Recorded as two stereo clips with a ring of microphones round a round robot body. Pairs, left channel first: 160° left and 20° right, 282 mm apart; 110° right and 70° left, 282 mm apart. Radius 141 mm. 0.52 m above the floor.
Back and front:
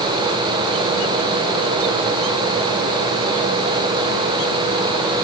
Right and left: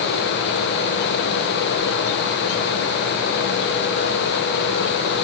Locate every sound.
Only background noise.